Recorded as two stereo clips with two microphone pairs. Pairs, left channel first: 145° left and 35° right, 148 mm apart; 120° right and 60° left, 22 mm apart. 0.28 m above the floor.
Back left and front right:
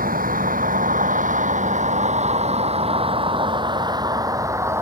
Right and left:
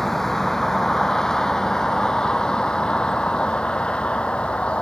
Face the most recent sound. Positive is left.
turn(degrees=-105)